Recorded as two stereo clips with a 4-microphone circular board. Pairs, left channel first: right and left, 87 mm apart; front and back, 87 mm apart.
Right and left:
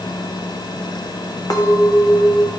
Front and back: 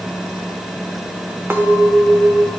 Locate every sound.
1.5 s a clink: 120° right, 0.8 m